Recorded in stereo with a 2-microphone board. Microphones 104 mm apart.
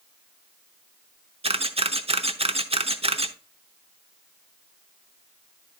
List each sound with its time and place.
1.4 s a camera shutter: 65° right (ahead or behind), 0.8 m